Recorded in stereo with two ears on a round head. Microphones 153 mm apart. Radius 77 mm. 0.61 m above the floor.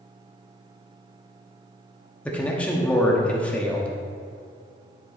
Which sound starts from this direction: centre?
A man speaking, at 2.2 s.